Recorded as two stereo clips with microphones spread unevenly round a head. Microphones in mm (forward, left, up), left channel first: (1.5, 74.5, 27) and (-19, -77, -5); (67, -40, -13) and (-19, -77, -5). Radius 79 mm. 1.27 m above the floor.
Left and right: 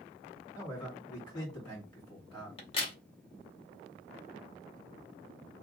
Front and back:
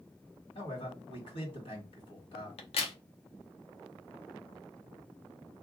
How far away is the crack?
About 0.8 m.